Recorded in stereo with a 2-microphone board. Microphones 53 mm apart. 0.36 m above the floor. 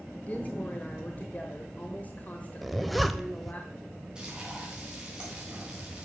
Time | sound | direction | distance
0.3 | a woman speaking | 30° left (ahead or behind) | 1.1 m
2.6 | a zipper | centre (ahead or behind) | 0.7 m
4.2 | frying | 15° right (ahead or behind) | 3.5 m